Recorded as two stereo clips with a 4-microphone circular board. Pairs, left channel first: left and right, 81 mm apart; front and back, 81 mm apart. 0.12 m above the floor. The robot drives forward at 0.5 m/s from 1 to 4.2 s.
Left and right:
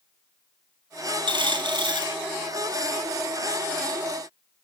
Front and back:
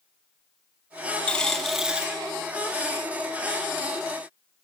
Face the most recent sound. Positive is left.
turn(degrees=-145)